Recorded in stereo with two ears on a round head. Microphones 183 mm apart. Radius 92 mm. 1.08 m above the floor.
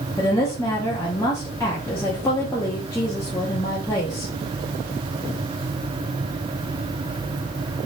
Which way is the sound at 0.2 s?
15° left (ahead or behind).